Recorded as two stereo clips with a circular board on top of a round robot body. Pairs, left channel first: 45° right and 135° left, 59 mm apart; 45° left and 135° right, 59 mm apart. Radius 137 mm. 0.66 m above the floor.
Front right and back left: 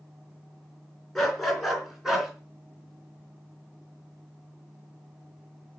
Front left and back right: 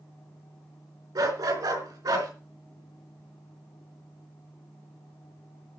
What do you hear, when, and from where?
1.1 s a dog barking: 130° right, 4 m; by 2.3 s 140° right, 3.5 m